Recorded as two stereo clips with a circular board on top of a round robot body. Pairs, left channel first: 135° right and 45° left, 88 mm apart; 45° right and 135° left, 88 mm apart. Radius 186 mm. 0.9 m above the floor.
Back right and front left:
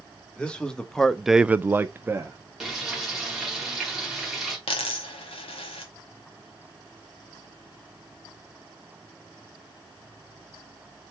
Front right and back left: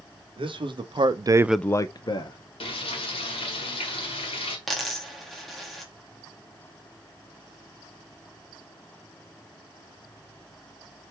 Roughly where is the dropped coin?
Behind right.